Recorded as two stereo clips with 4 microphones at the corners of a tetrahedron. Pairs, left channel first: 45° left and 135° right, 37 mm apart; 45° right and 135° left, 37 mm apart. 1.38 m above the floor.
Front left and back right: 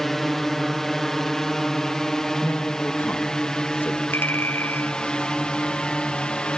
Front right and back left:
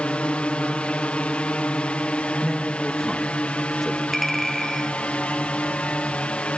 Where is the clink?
40° left.